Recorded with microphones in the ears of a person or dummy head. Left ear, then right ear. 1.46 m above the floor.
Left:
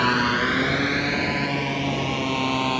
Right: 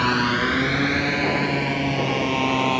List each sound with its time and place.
0.0 s a motorcycle: 10° left (ahead or behind); by 2.8 s 5° right (ahead or behind)